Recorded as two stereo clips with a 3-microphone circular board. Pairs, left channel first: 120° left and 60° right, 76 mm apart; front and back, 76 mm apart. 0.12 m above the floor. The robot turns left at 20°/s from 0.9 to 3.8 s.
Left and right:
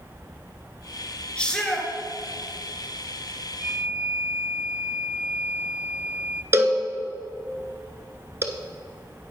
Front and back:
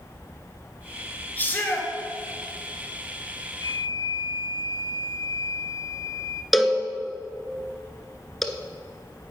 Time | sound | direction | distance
1.4 | a shout | 50° left | 1.9 m
3.6 | a flute | 15° left | 0.7 m
6.5 | a cowbell | 90° right | 0.8 m